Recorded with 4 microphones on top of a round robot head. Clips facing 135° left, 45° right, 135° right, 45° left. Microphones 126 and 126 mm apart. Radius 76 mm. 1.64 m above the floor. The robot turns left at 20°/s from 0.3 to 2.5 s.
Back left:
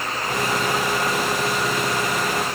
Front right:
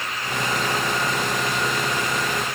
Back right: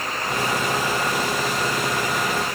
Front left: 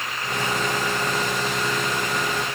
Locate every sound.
Only background noise.